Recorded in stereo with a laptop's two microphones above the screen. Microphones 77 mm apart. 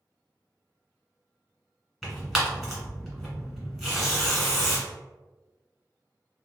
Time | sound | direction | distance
2.0 | tearing paper | 5° right (ahead or behind) | 1.5 m